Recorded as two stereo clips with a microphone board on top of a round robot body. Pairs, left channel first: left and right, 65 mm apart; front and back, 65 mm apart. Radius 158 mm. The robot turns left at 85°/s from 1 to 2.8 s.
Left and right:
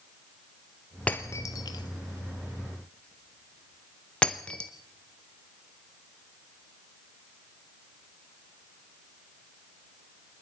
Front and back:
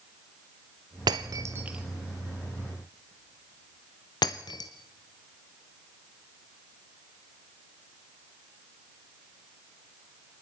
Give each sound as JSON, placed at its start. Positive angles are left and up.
{"t": 1.1, "sound": "breaking glass", "azimuth_deg": 160, "distance_m": 0.7}